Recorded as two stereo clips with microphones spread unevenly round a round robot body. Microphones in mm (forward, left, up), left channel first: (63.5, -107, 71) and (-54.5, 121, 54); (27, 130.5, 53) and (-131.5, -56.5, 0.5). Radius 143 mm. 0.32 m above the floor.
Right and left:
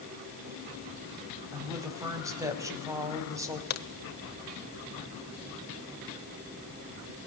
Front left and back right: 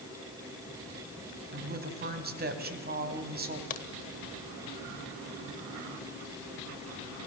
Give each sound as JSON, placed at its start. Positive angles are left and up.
{"t": 1.5, "sound": "a woman speaking", "azimuth_deg": -170, "distance_m": 2.5}
{"t": 3.7, "sound": "a crack", "azimuth_deg": -15, "distance_m": 1.0}